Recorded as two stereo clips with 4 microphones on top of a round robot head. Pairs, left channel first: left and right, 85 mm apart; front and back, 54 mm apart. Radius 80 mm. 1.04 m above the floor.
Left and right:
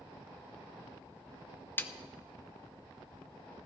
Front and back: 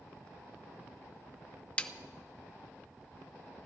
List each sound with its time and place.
1.8 s a snare drum: 50° left, 0.7 m